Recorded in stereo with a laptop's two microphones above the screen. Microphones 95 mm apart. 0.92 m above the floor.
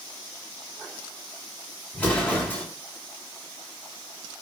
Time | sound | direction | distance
1.9 | an explosion | 15° left (ahead or behind) | 3.5 m